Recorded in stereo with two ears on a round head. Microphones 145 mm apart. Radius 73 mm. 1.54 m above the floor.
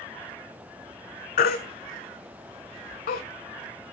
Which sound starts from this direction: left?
A baby crying, at 1.4 s.